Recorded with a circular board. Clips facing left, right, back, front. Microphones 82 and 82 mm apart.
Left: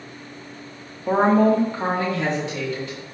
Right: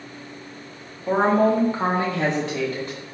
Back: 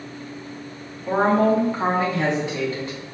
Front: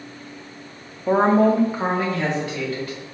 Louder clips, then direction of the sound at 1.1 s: Left 2 dB, front 2 dB; 20° left.